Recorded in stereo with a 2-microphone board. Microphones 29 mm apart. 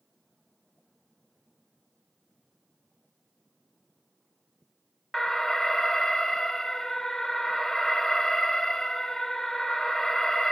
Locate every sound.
5.1 s an alarm: 15° left (ahead or behind), 0.6 m